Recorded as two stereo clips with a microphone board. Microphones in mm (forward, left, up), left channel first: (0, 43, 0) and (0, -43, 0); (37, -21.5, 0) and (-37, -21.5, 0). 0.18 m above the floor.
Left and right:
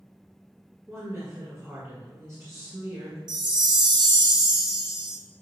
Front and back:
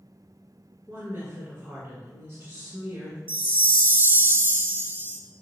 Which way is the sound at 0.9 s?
130° right.